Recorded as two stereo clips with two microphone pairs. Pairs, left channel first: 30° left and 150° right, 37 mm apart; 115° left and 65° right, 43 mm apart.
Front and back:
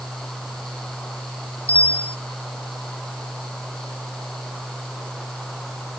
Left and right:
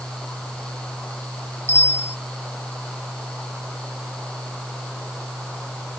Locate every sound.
1.7 s a bicycle bell: 85° left